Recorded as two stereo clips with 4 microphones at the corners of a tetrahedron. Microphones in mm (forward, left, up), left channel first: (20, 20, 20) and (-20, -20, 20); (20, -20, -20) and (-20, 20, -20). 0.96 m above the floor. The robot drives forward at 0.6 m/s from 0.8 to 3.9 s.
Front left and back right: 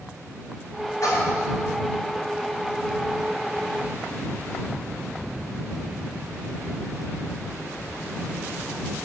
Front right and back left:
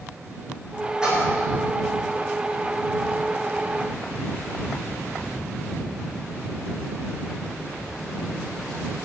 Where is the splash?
55° left, 6.5 m; by 1.5 s 60° left, 6.5 m.